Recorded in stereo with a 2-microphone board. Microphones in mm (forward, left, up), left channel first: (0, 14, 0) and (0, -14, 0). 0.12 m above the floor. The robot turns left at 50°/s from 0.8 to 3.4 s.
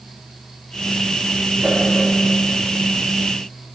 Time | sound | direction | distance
1.6 | a whoosh | 70° right (ahead or behind) | 3 m